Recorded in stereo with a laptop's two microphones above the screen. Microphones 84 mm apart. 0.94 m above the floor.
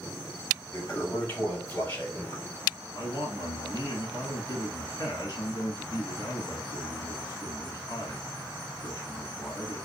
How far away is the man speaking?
About 1.6 m.